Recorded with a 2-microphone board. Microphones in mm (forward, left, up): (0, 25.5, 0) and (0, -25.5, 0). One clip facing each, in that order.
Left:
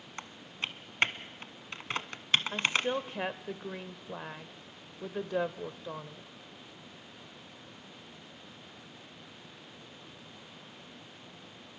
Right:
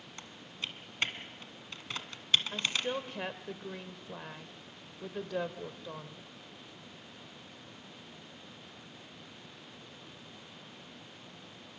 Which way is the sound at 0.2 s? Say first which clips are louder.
Left 4 dB; 45° left (ahead or behind).